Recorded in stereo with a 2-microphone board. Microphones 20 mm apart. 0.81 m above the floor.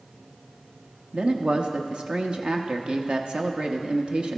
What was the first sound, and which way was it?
A man speaking, 50° right (ahead or behind).